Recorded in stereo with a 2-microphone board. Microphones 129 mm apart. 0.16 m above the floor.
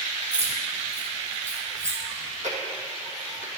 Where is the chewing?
75° right (ahead or behind), 1.4 m.